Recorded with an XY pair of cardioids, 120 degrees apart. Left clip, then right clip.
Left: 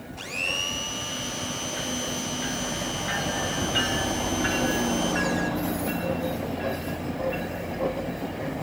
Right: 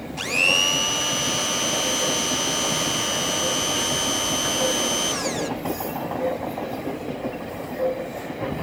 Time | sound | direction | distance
0.2 | a blender | 45° right | 0.8 m